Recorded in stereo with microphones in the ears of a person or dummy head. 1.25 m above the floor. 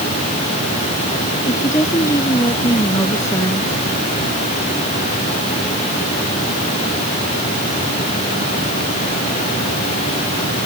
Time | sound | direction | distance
1.5 | a woman speaking | 20° left (ahead or behind) | ?